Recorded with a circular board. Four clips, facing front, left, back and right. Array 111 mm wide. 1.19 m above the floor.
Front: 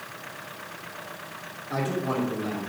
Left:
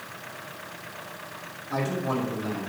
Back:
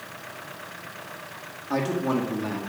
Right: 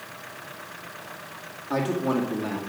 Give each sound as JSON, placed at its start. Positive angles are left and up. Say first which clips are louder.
{"t": 1.7, "sound": "a man speaking", "louder": "right 3 dB, back 3 dB", "azimuth_deg": -140, "distance_m": 1.9}